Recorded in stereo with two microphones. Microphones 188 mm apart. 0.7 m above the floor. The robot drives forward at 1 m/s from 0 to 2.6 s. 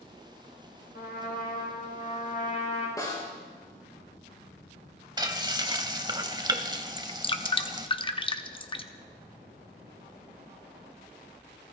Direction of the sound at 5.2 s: 25° right (ahead or behind).